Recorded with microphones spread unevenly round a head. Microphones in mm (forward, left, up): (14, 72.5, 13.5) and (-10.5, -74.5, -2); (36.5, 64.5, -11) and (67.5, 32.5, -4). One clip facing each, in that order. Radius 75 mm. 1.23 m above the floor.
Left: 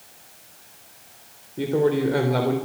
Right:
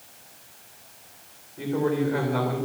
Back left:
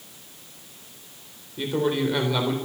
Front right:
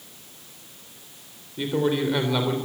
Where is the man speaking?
40° left, 3.5 m.